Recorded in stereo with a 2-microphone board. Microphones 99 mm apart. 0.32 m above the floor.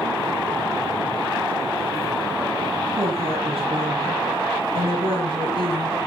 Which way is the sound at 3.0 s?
65° right (ahead or behind).